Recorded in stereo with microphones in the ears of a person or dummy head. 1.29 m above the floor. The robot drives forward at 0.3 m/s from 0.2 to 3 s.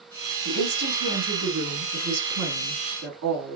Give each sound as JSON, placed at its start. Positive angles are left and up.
{"t": 0.5, "sound": "a woman speaking", "side_deg": -80, "distance_m": 2.5}